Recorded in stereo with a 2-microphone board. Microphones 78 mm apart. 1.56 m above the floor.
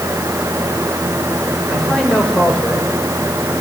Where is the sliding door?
I don't hear a sliding door.